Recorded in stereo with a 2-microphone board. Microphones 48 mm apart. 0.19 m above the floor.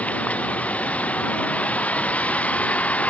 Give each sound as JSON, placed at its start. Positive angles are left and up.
{"t": 0.0, "sound": "a vehicle", "side_deg": 30}